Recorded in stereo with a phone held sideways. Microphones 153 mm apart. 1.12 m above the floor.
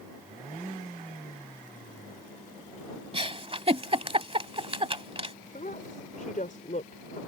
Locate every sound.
3.1 s a giggle: 35° right (ahead or behind)
5.5 s a woman speaking: 55° left (ahead or behind)